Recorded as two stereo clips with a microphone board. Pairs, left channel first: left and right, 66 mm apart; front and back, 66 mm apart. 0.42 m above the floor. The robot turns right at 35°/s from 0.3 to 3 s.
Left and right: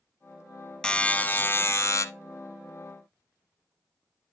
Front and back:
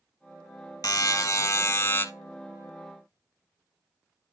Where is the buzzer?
10° left, 0.7 m; by 2.0 s 55° left, 0.7 m.